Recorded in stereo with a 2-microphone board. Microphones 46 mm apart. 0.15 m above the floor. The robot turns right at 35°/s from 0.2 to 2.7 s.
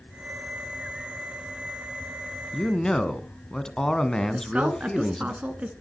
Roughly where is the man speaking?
Centre.